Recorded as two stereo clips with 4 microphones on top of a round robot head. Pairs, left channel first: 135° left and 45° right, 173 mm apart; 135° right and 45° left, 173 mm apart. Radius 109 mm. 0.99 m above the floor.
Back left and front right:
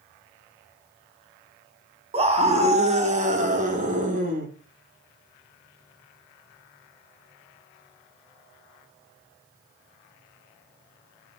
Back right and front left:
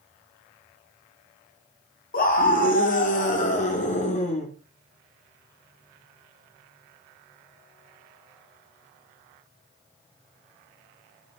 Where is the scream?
100° right, 3.5 m; by 4.5 s 85° right, 4 m.